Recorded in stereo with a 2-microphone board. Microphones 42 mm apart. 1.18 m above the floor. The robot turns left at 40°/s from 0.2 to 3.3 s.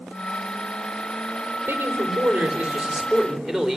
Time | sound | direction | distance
1.7 | a man speaking | 115° right | 4 m